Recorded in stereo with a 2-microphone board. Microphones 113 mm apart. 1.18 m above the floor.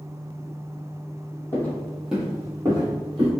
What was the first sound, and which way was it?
Footsteps, 20° left (ahead or behind).